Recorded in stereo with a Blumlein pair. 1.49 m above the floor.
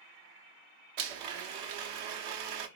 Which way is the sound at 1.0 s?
45° right.